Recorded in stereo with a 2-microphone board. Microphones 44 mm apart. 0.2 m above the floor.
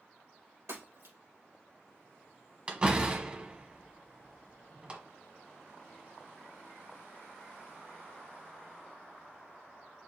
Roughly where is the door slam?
Right.